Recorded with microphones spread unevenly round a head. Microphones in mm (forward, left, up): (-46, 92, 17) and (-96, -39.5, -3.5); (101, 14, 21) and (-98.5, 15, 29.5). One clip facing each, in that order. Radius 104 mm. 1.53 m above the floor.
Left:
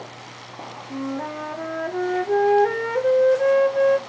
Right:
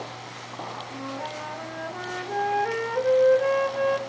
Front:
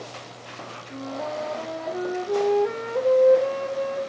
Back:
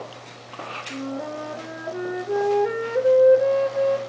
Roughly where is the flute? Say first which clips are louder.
Left 9 dB, back 1 dB; left.